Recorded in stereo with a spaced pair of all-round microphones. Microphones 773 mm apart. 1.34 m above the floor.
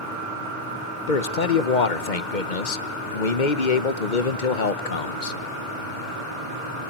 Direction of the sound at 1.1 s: 75° left (ahead or behind).